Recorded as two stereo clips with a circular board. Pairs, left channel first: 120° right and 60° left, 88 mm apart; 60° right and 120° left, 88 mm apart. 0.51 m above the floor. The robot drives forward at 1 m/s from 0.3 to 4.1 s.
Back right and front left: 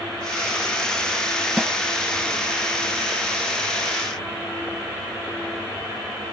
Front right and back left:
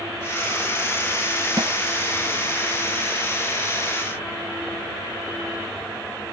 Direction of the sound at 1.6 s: 140° left.